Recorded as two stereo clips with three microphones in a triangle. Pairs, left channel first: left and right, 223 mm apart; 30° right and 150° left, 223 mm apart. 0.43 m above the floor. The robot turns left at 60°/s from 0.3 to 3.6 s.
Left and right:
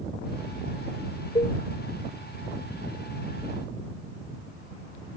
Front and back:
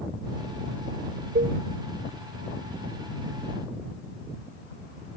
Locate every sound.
1.4 s a cowbell: 145° left; by 1.6 s 130° left